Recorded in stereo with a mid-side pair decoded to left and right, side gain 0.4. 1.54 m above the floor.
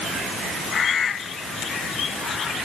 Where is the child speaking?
I don't hear a child speaking.